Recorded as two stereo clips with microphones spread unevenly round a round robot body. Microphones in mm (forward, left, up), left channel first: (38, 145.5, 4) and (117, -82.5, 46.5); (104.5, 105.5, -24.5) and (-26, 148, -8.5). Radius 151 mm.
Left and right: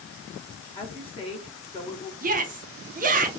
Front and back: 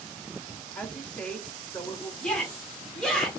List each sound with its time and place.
0.8 s a woman speaking: 55° left, 1.9 m
2.2 s a shout: 80° right, 0.7 m